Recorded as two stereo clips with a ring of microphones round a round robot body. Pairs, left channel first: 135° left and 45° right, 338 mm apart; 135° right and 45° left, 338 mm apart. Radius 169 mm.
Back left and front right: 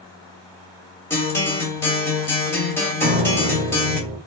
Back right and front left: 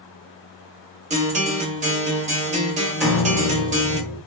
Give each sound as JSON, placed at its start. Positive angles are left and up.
{"t": 1.1, "sound": "a guitar", "azimuth_deg": 65, "distance_m": 0.6}
{"t": 3.0, "sound": "a piano", "azimuth_deg": -50, "distance_m": 0.6}